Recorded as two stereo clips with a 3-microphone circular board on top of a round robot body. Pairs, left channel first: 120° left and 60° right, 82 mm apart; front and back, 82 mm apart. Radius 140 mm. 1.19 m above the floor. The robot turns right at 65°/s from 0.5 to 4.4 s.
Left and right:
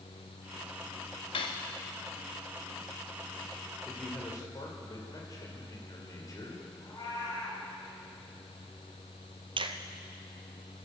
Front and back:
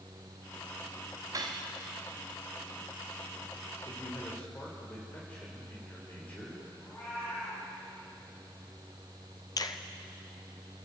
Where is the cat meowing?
65° left, 7.5 m.